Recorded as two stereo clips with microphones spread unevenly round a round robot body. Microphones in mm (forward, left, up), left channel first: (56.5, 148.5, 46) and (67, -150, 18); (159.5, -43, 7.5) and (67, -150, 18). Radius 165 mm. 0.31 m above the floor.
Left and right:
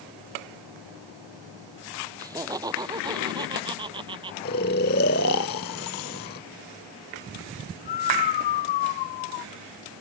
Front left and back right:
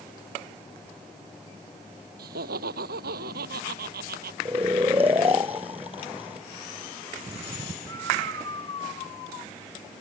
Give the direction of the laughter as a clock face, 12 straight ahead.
6 o'clock.